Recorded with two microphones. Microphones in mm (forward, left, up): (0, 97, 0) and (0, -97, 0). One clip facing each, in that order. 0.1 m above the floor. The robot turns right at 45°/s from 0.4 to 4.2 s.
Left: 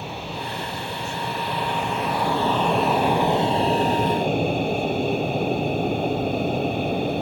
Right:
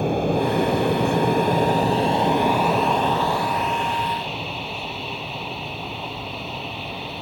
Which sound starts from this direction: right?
An aircraft, at 0.0 s.